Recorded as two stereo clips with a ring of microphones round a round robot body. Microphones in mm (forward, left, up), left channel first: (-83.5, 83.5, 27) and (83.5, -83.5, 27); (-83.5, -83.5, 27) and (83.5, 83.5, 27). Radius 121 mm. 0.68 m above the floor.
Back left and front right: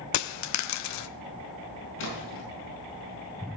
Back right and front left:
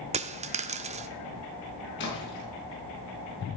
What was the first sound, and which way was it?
A dropped coin, 110° left.